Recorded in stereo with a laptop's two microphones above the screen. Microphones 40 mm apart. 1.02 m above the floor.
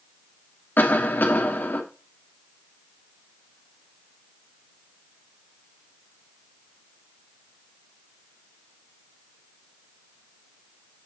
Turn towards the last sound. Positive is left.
turn(degrees=55)  # may be behind; listen again after turning